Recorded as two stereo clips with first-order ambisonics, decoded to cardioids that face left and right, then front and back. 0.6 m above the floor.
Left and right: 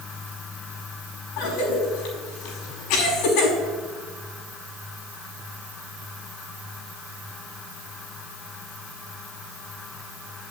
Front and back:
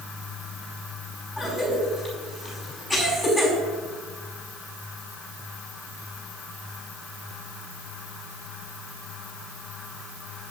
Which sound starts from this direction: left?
A cough, at 1.4 s.